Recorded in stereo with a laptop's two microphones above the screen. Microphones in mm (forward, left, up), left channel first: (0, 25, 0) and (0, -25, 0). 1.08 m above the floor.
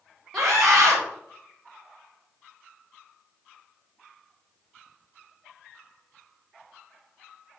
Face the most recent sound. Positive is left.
turn(degrees=0)  # may be behind; listen again after turning